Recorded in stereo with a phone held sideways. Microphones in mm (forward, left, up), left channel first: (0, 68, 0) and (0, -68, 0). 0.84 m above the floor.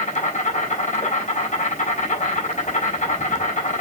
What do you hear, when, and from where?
0.0 s an insect: 60° left (ahead or behind), 6 m